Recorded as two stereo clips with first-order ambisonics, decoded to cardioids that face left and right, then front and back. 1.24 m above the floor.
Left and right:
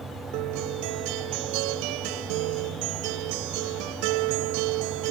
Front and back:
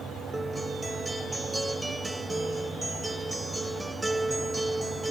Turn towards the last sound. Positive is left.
turn(degrees=-95)